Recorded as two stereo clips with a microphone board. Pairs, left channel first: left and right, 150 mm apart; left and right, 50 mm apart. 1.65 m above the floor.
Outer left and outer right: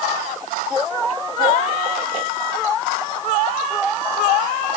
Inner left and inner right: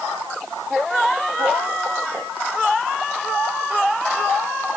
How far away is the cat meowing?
No cat meowing in this recording.